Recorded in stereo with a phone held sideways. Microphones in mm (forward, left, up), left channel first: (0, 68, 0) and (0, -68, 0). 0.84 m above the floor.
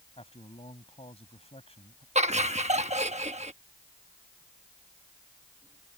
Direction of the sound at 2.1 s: 55° right (ahead or behind).